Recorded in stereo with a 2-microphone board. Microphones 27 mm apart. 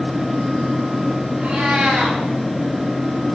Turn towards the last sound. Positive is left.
turn(degrees=-55)  # may be behind; listen again after turning